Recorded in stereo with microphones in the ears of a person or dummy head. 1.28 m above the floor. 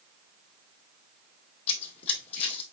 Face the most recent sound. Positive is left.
turn(degrees=45)  # may be behind; listen again after turning